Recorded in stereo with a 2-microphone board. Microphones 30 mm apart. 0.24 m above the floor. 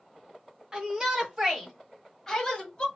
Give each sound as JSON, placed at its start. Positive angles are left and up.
{"t": 0.7, "sound": "a shout", "side_deg": -15, "distance_m": 1.4}